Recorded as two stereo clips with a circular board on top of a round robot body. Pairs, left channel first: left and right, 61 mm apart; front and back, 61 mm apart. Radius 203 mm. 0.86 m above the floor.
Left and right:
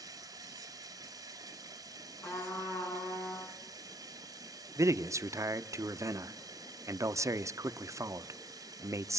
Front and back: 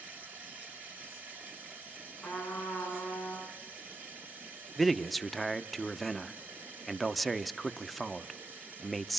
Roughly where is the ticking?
I don't hear ticking.